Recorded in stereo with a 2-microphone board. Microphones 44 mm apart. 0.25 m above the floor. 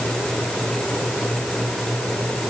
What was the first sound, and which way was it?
Only background noise.